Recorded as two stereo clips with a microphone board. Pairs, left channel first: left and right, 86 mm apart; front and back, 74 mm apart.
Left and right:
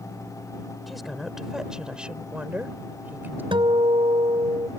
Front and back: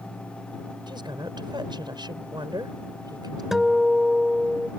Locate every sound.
0.9 s a woman speaking: straight behind; by 3.4 s 155° right
3.5 s a guitar: 95° right